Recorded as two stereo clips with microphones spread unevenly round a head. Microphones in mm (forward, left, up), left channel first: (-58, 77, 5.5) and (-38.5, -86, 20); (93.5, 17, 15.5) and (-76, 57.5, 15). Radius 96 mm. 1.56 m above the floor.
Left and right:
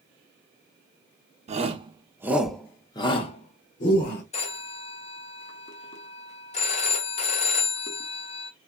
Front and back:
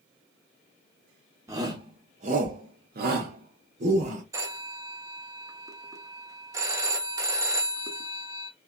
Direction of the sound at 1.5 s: 120° right.